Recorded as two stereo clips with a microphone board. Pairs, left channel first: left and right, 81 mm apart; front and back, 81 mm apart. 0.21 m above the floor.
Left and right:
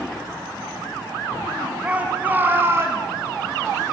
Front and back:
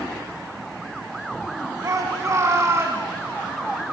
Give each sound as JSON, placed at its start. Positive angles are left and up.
{"t": 1.8, "sound": "a shout", "azimuth_deg": -160, "distance_m": 2.5}